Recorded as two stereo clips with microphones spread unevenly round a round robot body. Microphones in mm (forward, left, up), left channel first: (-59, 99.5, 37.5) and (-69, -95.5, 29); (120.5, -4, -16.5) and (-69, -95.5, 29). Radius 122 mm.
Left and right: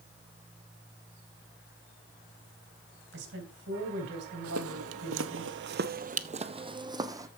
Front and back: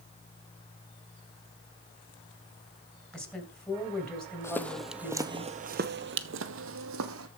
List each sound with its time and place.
3.1 s a woman speaking: 60° right, 4 m
4.4 s footsteps: 55° right, 1.1 m; by 7.3 s 170° right, 1.6 m